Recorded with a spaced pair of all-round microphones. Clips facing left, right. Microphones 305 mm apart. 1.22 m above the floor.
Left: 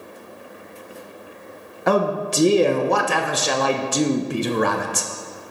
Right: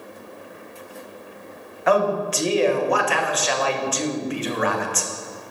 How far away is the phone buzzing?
No phone buzzing in this recording.